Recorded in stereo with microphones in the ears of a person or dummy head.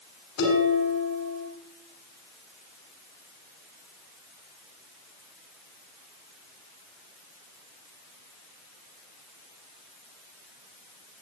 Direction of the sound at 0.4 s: 75° left (ahead or behind).